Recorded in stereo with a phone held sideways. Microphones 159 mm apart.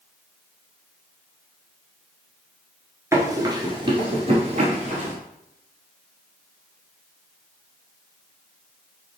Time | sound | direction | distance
3.1 | running footsteps | 20° right (ahead or behind) | 1.2 m